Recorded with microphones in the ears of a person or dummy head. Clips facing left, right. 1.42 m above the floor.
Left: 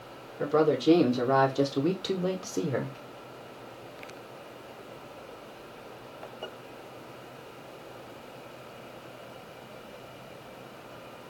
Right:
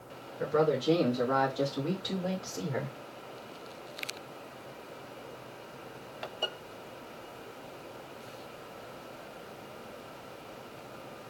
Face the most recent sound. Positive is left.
turn(degrees=40)  # may be behind; listen again after turning